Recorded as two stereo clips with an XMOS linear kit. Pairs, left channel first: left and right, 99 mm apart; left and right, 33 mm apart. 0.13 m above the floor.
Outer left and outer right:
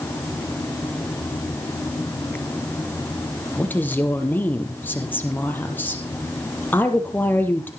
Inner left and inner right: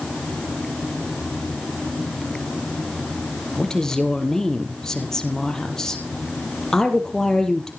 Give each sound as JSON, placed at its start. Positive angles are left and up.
{"t": 3.6, "sound": "a woman speaking", "side_deg": 15, "distance_m": 3.5}